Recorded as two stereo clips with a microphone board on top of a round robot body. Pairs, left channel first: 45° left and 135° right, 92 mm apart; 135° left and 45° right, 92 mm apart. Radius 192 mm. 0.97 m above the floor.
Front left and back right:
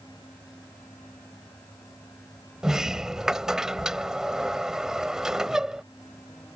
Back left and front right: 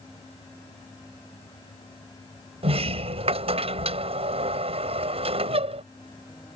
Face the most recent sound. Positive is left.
turn(degrees=-50)